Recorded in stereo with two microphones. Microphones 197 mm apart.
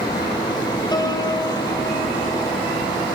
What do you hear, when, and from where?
0.9 s a piano: 20° left (ahead or behind), 2.5 m